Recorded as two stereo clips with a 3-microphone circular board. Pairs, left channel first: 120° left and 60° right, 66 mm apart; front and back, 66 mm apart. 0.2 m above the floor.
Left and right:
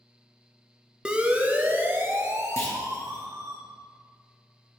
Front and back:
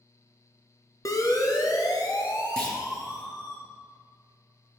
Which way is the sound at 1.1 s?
15° left.